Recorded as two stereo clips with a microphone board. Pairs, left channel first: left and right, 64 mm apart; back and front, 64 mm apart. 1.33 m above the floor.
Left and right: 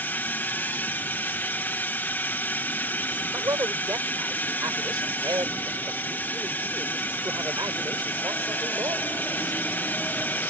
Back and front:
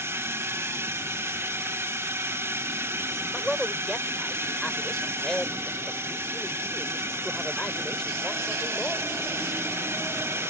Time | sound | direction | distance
0.0 | a drone | 35° left | ?
3.3 | a man speaking | 100° right | ?